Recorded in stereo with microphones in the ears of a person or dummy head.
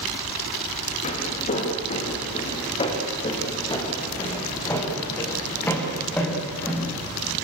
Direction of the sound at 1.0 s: 45° left (ahead or behind).